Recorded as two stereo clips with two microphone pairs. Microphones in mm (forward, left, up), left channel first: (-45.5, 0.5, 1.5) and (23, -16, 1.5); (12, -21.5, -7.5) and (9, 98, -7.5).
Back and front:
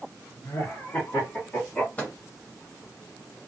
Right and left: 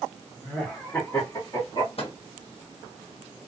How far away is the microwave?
About 1.0 m.